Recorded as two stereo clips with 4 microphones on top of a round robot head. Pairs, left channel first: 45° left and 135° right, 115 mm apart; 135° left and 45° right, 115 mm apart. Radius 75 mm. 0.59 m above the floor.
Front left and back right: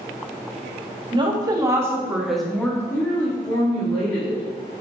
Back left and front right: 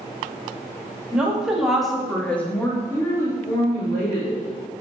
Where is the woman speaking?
125° right, 0.9 m; by 4.4 s 75° left, 1.3 m.